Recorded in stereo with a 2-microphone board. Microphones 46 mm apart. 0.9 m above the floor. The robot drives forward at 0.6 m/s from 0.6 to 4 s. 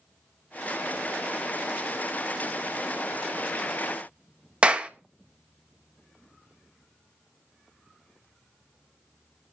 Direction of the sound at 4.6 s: 25° right (ahead or behind).